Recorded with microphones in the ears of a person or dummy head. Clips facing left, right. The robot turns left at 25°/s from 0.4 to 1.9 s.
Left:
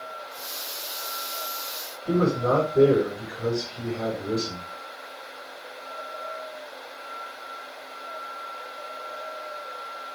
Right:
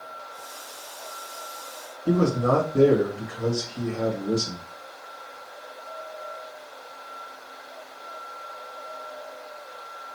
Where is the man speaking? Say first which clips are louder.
Right 1 dB; 75° right (ahead or behind), 1.8 m.